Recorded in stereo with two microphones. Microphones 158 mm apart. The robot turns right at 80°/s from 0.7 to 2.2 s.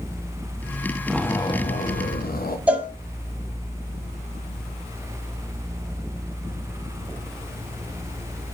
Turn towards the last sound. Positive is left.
turn(degrees=-10)  # may be behind; listen again after turning